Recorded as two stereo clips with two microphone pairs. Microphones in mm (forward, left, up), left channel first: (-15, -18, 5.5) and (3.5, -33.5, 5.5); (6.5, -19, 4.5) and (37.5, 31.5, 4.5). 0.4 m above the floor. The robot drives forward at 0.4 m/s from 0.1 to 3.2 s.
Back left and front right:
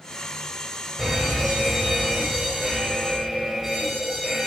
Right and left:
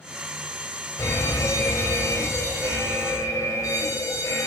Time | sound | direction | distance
1.0 | a fire alarm | 110° right | 3.5 m